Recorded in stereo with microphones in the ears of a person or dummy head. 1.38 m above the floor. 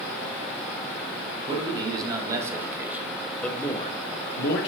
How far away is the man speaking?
About 2.5 m.